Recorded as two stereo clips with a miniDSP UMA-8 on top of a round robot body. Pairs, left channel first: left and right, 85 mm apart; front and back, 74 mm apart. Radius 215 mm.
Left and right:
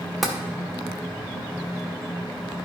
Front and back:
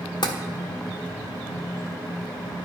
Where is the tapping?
Straight ahead, 1.0 m.